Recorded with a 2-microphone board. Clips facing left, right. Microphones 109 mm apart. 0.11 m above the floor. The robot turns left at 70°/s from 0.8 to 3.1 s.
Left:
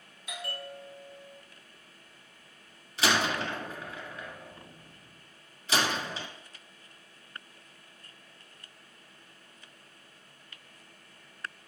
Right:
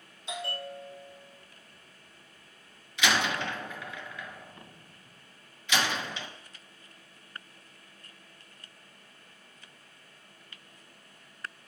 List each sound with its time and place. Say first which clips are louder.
0.3 s a bell: right 3 dB; 155° right, 1.1 m; by 1.4 s 160° left, 1.1 m
3.0 s a door slam: even; 40° left (ahead or behind), 1.0 m